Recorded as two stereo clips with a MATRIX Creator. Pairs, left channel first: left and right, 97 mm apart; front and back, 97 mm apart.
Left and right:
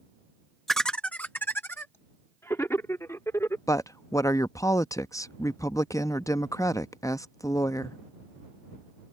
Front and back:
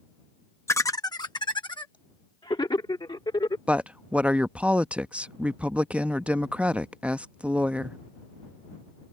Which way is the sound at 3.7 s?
110° left.